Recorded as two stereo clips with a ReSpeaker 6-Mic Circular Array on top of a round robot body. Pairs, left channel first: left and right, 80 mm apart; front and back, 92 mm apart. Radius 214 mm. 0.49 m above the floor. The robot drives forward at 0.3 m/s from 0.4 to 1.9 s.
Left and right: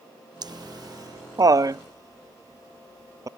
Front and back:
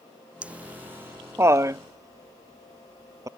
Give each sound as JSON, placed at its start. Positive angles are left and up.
{"t": 0.4, "sound": "laughter", "azimuth_deg": -105}